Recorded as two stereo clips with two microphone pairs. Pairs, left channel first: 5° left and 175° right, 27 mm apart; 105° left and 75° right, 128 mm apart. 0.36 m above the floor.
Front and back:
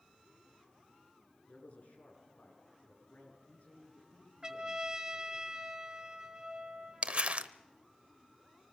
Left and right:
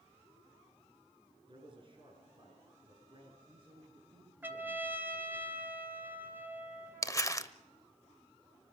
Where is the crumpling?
165° left, 0.6 m.